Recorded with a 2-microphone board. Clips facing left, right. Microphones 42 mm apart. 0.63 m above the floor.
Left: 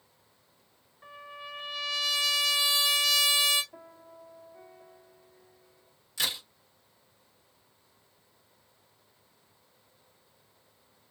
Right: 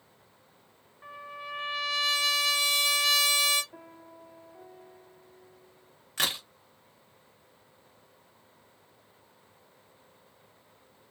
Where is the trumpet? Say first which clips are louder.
Right 3 dB; 20° right (ahead or behind), 1.5 m.